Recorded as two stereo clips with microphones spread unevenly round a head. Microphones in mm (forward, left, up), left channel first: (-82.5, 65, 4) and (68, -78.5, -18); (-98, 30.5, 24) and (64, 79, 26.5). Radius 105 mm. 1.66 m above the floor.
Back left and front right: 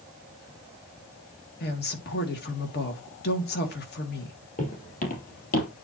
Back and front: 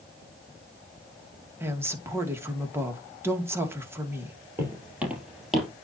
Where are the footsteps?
90° left, 3.5 m; by 5.7 s 110° left, 3 m.